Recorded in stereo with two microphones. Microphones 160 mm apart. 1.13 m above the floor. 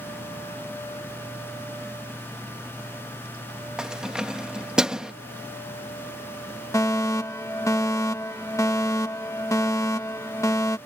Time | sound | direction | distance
3.8 | keys jangling | 5° right (ahead or behind) | ?
6.7 | a fire alarm | 20° left (ahead or behind) | ?